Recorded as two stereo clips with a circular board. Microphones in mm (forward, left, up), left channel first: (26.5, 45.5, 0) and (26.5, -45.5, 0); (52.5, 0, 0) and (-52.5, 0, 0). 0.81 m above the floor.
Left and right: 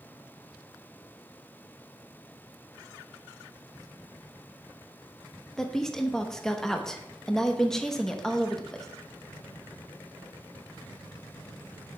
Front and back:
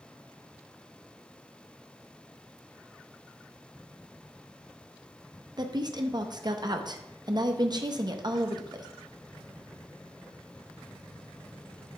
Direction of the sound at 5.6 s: 170° left.